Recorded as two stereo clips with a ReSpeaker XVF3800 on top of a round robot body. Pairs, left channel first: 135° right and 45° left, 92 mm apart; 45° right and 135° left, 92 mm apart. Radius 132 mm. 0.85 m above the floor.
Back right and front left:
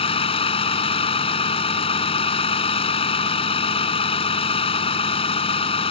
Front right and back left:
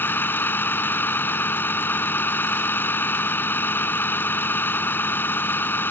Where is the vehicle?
115° right.